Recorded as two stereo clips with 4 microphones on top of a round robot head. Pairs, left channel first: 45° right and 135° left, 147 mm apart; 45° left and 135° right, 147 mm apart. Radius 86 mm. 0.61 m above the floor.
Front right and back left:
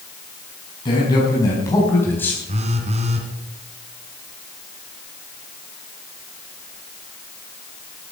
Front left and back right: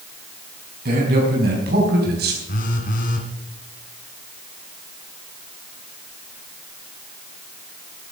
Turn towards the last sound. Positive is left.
turn(degrees=85)